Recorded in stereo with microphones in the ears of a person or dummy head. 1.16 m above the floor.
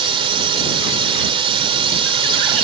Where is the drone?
30° right (ahead or behind).